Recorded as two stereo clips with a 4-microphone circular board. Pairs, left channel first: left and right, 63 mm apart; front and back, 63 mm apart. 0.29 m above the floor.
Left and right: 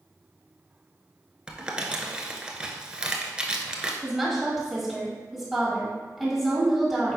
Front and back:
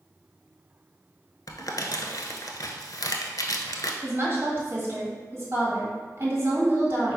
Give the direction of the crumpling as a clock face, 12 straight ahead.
12 o'clock.